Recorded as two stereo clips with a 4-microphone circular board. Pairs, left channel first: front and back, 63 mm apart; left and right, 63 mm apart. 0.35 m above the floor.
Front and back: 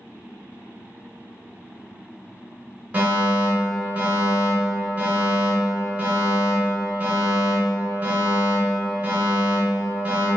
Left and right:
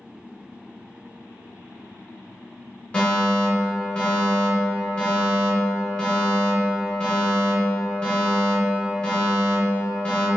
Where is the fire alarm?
135° left, 2.0 m.